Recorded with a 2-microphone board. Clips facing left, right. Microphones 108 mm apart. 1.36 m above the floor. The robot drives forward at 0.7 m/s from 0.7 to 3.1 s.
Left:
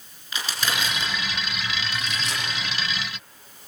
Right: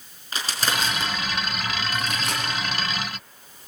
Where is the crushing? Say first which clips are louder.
Right 1 dB; 40° right (ahead or behind), 4.5 m; by 2.4 s 50° right (ahead or behind), 4 m.